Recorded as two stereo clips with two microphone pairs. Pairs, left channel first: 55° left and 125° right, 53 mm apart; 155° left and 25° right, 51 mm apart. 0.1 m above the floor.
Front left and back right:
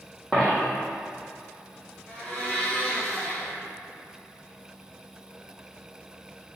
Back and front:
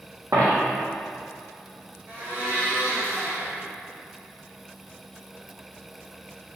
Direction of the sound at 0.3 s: 25° right.